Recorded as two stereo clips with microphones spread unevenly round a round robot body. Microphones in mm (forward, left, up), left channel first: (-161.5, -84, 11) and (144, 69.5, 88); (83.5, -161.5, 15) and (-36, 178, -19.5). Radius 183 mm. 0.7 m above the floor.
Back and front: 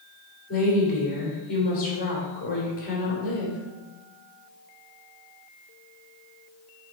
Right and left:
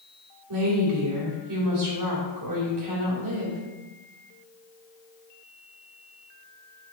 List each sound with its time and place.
0.5 s a woman speaking: 145° left, 3 m